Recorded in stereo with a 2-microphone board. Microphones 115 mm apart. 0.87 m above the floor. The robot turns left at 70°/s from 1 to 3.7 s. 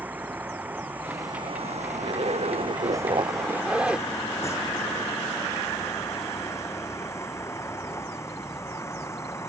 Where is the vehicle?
15° right; by 9.5 s 155° left.